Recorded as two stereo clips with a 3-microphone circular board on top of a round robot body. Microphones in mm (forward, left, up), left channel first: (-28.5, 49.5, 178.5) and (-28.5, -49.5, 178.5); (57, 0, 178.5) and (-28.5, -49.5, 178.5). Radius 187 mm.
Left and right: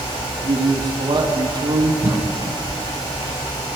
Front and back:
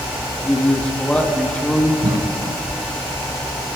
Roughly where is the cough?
Behind right.